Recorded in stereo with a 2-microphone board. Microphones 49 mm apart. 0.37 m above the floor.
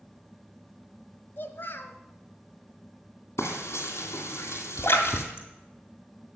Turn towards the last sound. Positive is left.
turn(degrees=55)  # may be behind; listen again after turning